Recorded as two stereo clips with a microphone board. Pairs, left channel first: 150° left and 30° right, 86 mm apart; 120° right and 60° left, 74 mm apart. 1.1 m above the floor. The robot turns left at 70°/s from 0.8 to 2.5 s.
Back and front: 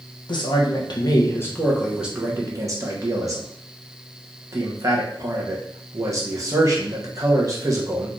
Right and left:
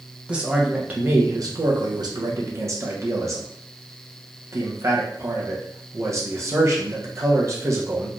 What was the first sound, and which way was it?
A man speaking, 135° left.